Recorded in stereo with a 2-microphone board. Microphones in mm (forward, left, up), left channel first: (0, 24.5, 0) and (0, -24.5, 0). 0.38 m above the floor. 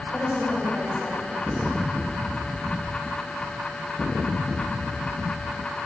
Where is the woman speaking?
30° right (ahead or behind), 1.5 m.